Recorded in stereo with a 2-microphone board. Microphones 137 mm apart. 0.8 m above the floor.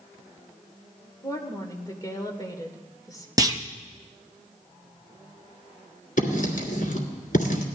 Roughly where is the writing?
Left.